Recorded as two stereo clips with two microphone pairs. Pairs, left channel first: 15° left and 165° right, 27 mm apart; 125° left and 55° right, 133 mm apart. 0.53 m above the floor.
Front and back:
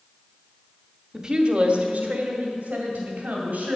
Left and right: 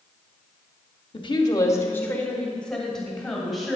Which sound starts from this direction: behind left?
A woman speaking, at 1.1 s.